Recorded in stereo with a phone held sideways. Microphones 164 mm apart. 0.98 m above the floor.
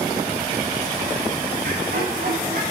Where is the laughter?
70° right (ahead or behind), 3 m.